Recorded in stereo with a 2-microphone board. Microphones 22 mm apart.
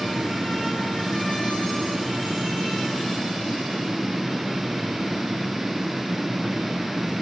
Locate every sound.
Only background noise.